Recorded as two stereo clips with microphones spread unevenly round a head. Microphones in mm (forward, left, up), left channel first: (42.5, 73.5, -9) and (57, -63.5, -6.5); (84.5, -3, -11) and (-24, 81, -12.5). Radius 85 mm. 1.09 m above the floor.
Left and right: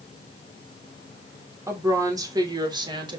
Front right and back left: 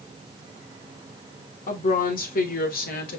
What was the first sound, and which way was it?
A woman speaking, 15° right.